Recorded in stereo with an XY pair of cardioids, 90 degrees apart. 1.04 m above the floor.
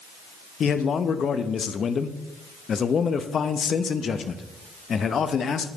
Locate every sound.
0.6 s a man speaking: 55° left, 0.8 m